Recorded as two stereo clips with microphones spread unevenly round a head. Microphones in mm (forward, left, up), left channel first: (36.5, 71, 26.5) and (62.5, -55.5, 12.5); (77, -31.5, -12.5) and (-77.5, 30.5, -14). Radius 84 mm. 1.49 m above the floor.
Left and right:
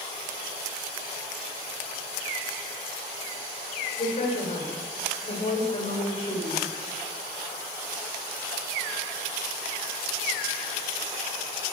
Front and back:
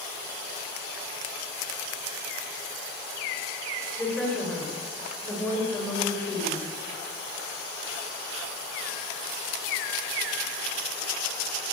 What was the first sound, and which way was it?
A woman speaking, 65° left.